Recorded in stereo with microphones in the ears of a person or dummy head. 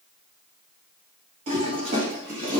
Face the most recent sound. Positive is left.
turn(degrees=-45)  # may be behind; listen again after turning